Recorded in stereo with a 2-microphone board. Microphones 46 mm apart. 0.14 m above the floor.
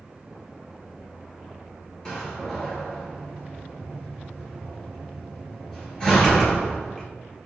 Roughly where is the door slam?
Centre.